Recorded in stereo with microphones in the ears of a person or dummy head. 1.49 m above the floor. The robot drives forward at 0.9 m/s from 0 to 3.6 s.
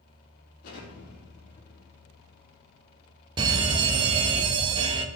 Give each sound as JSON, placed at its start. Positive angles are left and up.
{"t": 0.6, "sound": "an explosion", "side_deg": 60, "distance_m": 7.5}
{"t": 3.4, "sound": "a fire alarm", "side_deg": -20, "distance_m": 0.9}